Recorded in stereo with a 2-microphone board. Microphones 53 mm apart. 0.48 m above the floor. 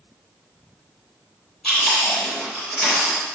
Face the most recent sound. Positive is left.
turn(degrees=5)  # may be behind; listen again after turning